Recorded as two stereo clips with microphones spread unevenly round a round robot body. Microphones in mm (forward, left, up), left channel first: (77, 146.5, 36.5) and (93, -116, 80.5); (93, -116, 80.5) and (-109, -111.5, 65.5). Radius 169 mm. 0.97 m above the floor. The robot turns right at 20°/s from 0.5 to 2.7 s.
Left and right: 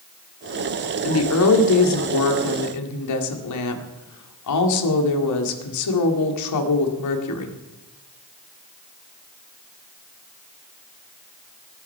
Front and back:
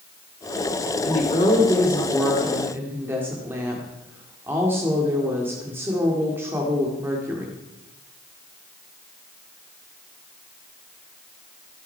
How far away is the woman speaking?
About 2 m.